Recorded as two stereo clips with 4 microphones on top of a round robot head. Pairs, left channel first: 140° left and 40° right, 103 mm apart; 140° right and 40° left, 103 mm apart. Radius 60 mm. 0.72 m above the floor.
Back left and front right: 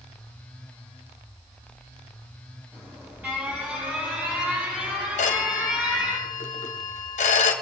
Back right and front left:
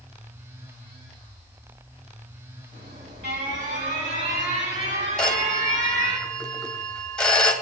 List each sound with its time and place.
2.7 s an alarm: 35° left, 6.5 m
5.2 s a phone ringing: 135° left, 2.5 m